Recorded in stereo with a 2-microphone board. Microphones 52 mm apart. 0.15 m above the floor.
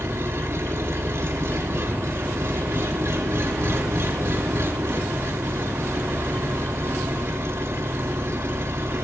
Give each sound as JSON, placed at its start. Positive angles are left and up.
{"t": 0.0, "sound": "an engine running", "side_deg": -75, "distance_m": 4.0}